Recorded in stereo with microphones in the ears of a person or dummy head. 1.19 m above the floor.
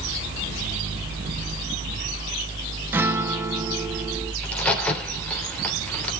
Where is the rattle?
I don't hear a rattle.